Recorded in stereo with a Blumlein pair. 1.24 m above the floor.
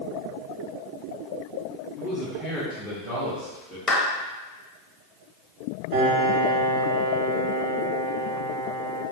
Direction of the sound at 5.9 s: 45° right.